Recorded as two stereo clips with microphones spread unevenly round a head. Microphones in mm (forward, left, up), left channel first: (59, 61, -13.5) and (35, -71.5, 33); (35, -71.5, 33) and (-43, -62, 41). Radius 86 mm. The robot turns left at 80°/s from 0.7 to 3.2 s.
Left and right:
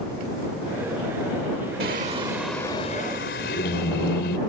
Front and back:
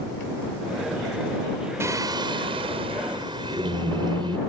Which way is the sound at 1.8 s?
130° right.